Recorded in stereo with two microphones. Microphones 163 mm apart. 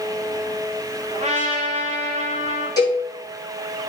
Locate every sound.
1.1 s a trumpet: 45° right (ahead or behind), 1.8 m
2.8 s a cowbell: 25° left (ahead or behind), 3 m